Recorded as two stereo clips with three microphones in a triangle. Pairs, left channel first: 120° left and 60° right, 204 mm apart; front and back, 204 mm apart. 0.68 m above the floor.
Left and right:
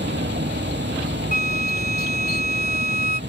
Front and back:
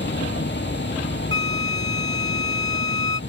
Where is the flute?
165° left.